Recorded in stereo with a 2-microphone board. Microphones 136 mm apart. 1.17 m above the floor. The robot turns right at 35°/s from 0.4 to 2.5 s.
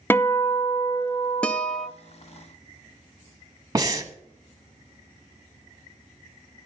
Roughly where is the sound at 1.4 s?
Centre.